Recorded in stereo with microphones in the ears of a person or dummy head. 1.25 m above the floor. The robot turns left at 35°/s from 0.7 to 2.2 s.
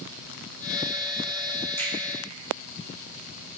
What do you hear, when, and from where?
1.8 s a finger snap: 15° left (ahead or behind), 1.2 m; by 1.9 s 10° left (ahead or behind), 1.2 m